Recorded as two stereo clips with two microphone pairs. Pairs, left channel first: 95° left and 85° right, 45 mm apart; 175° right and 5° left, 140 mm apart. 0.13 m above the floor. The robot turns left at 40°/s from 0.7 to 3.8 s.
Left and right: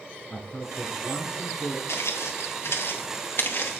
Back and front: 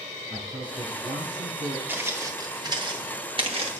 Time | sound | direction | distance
0.3 | a man speaking | 55° left | 1.4 m
1.9 | footsteps | 85° left | 2 m